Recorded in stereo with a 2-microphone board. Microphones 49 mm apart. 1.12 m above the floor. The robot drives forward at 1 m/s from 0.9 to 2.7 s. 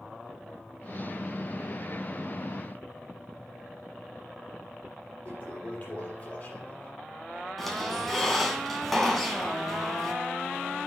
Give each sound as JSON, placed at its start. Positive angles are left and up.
{"t": 5.2, "sound": "a toilet flushing", "side_deg": 40, "distance_m": 5.5}
{"t": 7.6, "sound": "a squeak", "side_deg": 5, "distance_m": 2.0}